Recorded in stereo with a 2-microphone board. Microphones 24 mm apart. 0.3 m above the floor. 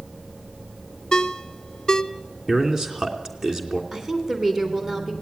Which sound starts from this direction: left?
A ringtone, at 1.1 s.